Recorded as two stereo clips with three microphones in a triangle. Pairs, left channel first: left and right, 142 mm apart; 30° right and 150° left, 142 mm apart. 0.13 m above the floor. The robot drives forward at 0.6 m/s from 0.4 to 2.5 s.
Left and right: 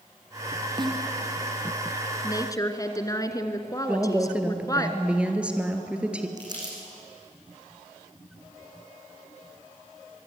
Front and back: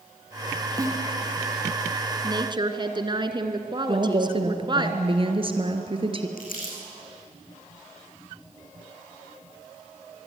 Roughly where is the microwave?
I don't hear a microwave.